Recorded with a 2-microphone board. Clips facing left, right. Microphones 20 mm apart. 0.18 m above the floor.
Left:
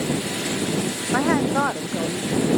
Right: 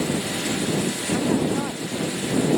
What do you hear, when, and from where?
1.1 s a woman speaking: 60° left (ahead or behind)